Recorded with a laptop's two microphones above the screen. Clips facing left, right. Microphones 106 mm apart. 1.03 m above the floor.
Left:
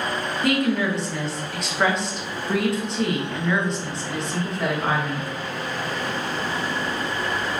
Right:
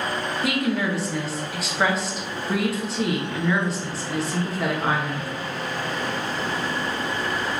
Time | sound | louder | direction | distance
0.4 | a woman speaking | left 3 dB | 5° right (ahead or behind) | 1.1 m